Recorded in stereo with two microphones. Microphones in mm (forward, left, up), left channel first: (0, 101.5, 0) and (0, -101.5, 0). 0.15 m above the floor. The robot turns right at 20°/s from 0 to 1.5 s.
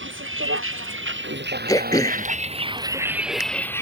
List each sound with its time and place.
0.0 s a vehicle: 70° right (ahead or behind); by 3.8 s 15° left (ahead or behind)
1.7 s throat clearing: 20° left (ahead or behind)